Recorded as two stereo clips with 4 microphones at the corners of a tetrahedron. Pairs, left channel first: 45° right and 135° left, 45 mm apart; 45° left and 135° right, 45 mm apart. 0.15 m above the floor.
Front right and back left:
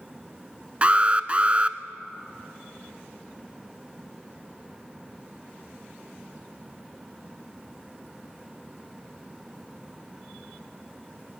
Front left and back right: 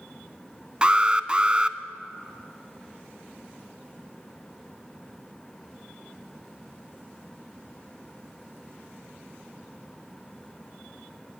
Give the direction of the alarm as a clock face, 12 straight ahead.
6 o'clock.